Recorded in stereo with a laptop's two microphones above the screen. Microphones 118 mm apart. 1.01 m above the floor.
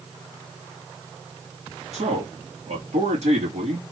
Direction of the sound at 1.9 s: 75° right (ahead or behind).